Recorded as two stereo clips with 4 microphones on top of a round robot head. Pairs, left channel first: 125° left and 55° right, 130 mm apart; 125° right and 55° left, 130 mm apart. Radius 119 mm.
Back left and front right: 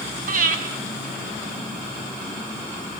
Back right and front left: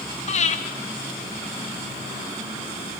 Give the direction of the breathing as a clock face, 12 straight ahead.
3 o'clock.